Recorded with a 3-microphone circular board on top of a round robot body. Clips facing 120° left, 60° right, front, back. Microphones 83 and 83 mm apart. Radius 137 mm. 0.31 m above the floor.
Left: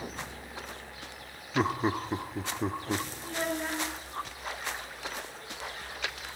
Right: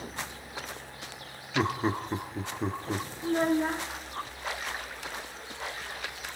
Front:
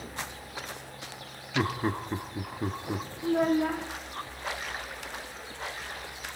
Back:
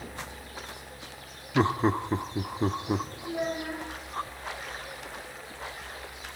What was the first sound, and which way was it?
Laughter, 155° right.